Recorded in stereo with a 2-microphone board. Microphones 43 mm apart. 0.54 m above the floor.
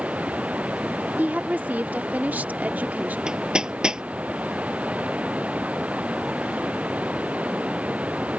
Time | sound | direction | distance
0.0 | running water | 30° right (ahead or behind) | ?
1.2 | a woman speaking | 40° right (ahead or behind) | ?
3.3 | hammering | 15° right (ahead or behind) | ?